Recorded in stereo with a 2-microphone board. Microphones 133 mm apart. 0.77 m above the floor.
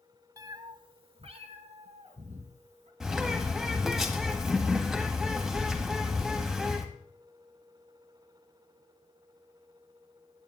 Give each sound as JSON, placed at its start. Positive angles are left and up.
{"t": 0.4, "sound": "a cat meowing", "side_deg": -25, "distance_m": 0.7}
{"t": 3.0, "sound": "a bird", "side_deg": -5, "distance_m": 1.5}